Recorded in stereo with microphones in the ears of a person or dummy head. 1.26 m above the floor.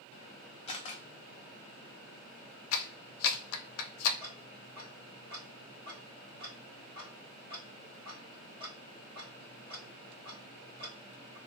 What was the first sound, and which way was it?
A camera shutter, 35° left (ahead or behind).